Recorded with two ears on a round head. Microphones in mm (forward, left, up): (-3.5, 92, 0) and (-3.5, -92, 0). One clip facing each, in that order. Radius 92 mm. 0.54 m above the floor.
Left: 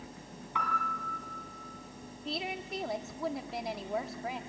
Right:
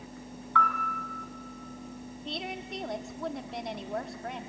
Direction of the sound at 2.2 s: 5° left (ahead or behind).